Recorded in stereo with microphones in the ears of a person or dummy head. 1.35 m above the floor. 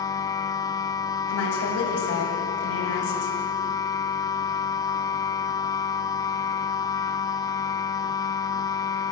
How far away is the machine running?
About 0.7 m.